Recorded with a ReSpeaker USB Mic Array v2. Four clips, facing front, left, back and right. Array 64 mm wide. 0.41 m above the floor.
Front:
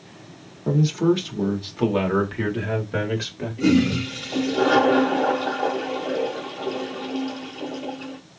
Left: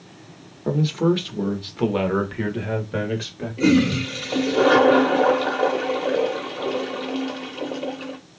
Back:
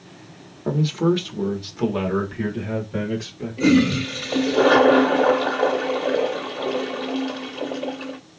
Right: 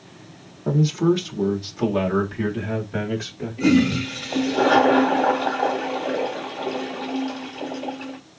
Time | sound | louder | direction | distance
0.7 | a man speaking | right 1 dB, front 1 dB | 140° left | 1.1 m
3.6 | a toilet flushing | even, back 2 dB | 135° left | 1.5 m